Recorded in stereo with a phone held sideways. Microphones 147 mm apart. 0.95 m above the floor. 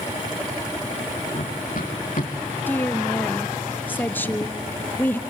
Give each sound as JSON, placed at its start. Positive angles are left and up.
{"t": 1.4, "sound": "running footsteps", "side_deg": 65, "distance_m": 3.5}
{"t": 2.7, "sound": "a woman speaking", "side_deg": 15, "distance_m": 1.0}